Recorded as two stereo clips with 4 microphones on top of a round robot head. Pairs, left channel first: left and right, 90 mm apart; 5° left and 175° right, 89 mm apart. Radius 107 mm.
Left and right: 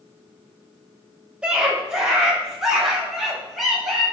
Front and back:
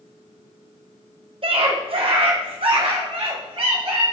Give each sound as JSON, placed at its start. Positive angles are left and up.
{"t": 1.4, "sound": "a scream", "azimuth_deg": -170, "distance_m": 3.0}